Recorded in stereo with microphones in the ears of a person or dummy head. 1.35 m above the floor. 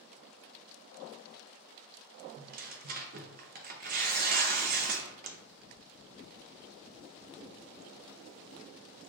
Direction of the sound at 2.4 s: 45° right (ahead or behind).